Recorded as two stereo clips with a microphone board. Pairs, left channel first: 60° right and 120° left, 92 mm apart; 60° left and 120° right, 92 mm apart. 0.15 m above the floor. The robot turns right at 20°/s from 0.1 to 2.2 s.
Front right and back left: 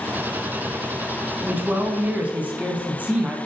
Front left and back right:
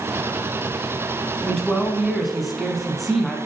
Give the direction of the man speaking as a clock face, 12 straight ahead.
7 o'clock.